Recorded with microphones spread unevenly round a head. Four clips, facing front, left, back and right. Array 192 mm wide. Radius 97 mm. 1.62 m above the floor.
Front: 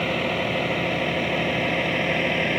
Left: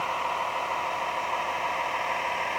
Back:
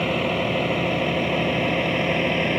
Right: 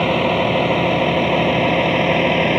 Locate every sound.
0.0 s a vehicle: 90° right